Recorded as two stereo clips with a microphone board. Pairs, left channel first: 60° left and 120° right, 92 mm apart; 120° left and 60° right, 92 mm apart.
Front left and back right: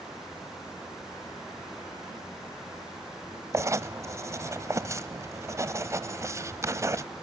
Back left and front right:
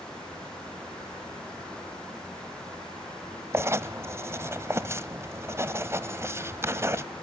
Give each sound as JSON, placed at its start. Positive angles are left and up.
{"t": 3.5, "sound": "writing", "azimuth_deg": -95, "distance_m": 0.7}